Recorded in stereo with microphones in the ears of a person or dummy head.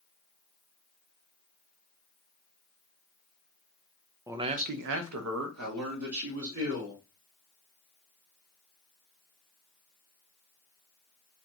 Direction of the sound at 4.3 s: 10° right (ahead or behind).